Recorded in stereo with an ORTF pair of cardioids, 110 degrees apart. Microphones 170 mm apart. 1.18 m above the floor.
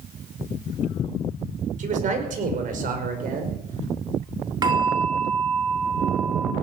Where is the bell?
25° right, 3 m.